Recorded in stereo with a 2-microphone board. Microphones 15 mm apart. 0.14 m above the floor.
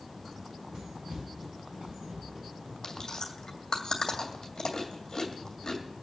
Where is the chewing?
40° left (ahead or behind), 2 m.